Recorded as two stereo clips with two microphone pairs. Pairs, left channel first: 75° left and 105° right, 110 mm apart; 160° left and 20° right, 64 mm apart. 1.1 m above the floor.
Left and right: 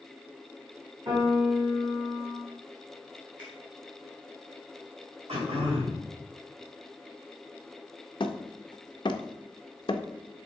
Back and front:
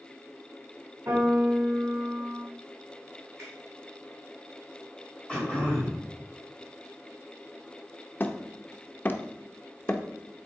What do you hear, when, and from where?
1.1 s a piano: 60° right, 3 m
3.4 s a finger snap: 65° right, 3.5 m
5.3 s throat clearing: 125° right, 2.5 m
8.2 s hammering: 110° left, 0.6 m